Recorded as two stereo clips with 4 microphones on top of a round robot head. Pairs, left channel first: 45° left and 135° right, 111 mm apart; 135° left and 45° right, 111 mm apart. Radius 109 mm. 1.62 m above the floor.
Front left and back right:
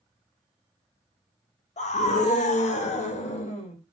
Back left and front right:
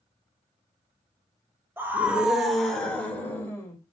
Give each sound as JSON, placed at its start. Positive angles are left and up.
{"t": 1.8, "sound": "a scream", "azimuth_deg": 30, "distance_m": 1.3}